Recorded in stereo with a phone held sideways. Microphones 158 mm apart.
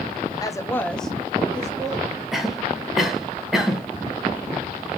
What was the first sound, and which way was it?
A woman speaking, 25° left (ahead or behind).